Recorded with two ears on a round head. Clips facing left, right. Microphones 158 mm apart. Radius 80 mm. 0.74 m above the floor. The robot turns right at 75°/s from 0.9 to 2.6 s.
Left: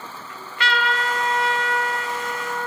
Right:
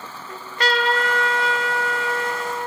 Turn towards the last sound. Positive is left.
turn(degrees=-15)